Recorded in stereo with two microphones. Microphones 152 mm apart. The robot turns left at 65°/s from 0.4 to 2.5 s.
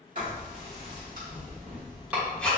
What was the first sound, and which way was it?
Writing, 55° right (ahead or behind).